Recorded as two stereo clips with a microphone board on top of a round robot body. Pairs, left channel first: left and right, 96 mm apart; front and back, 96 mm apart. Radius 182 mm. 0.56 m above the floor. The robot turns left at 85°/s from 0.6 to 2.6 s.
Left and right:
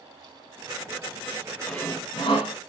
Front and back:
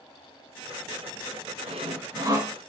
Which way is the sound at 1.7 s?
Straight behind.